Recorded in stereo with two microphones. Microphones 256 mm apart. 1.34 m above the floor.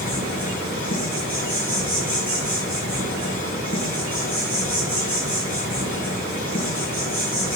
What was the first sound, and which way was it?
An insect, 35° left (ahead or behind).